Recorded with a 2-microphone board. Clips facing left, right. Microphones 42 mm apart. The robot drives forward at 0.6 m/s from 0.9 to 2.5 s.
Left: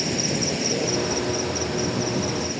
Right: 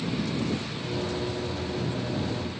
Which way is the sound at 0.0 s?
80° left.